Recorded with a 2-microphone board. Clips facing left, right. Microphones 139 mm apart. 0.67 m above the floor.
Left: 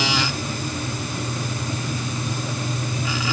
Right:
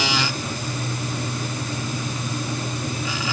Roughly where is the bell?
I don't hear a bell.